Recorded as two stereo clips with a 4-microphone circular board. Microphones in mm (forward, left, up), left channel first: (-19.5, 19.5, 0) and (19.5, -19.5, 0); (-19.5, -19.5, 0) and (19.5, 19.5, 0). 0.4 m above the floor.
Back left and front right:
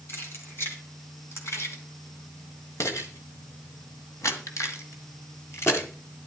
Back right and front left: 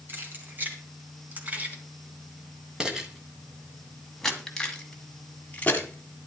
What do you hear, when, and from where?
0.1 s keys jangling: 95° left, 3 m; by 6.3 s 175° left, 2.5 m